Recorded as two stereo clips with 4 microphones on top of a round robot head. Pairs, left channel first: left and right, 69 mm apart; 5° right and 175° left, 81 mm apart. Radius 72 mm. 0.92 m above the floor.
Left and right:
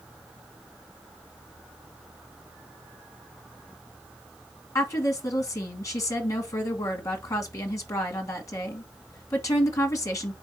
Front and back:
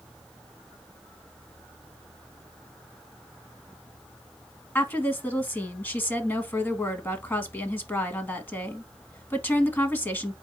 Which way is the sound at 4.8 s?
55° left.